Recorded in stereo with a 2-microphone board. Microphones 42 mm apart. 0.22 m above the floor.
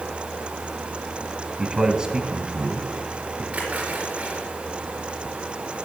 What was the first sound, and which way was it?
A man speaking, 20° right (ahead or behind).